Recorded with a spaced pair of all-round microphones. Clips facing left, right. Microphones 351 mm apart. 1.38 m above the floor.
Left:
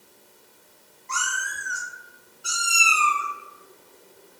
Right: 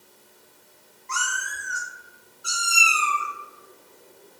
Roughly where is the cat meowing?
Left.